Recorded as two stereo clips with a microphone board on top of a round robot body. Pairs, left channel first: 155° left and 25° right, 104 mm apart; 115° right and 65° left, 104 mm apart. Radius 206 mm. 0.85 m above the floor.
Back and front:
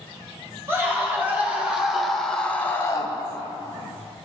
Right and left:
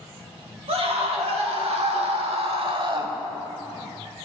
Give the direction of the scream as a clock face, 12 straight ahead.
10 o'clock.